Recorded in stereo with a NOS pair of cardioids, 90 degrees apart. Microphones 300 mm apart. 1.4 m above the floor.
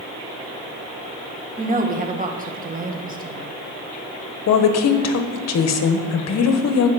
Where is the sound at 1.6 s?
30° right, 1.6 m.